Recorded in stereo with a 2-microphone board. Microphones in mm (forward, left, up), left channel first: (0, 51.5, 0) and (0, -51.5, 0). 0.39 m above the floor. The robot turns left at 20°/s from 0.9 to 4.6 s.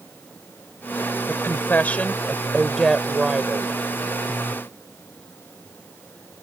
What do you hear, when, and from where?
1.3 s a woman speaking: 35° left; by 3.7 s 15° right